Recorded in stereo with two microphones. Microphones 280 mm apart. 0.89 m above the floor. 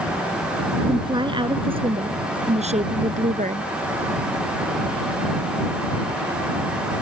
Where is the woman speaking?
15° right (ahead or behind); by 3.7 s 30° right (ahead or behind).